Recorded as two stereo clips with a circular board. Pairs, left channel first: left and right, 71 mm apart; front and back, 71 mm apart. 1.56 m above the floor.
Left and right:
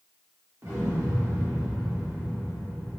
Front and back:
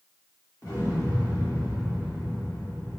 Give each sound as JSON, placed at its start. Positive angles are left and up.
{"t": 0.6, "sound": "an explosion", "azimuth_deg": -40, "distance_m": 1.4}